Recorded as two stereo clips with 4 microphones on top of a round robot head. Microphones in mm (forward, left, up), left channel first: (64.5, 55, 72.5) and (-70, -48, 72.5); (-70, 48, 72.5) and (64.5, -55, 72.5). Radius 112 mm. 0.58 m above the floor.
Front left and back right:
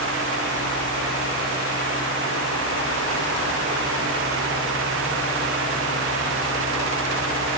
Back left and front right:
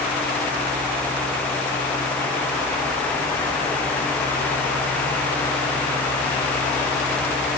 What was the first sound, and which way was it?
Only background noise.